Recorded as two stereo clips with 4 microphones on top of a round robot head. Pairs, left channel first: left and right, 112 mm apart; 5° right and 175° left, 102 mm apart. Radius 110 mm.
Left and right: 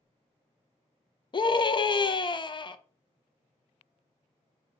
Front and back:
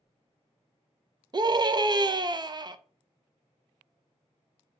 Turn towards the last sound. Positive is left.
turn(degrees=130)